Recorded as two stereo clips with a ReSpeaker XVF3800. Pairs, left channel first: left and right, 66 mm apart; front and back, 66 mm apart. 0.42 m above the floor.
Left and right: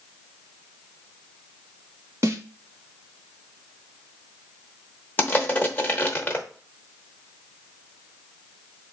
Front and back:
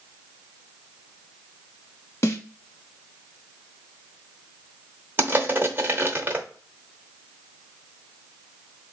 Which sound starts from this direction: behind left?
Crushing, at 5.2 s.